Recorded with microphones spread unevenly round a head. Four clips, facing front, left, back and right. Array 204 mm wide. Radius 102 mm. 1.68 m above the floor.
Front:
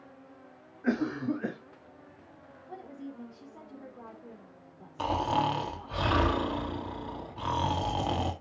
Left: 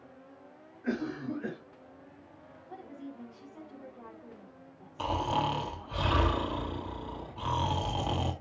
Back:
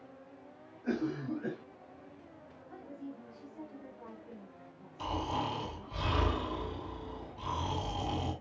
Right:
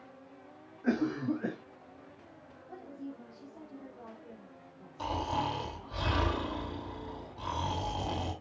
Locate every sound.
0.8 s a cough: 25° right, 2.5 m
2.7 s a woman speaking: 5° left, 4.5 m
5.0 s snoring: 10° left, 3 m